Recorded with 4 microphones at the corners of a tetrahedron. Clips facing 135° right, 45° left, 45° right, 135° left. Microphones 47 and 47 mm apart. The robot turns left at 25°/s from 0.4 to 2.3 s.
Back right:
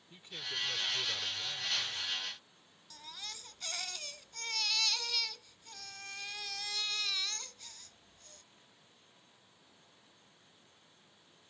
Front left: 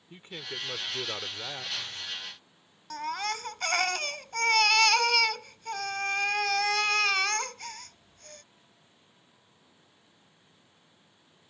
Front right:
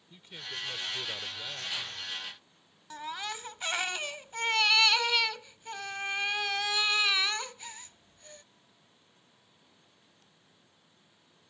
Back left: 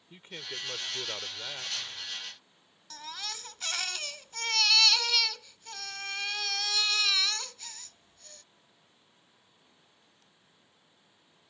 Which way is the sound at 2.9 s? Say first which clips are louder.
Front left 17 dB, front right 4 dB; 25° left.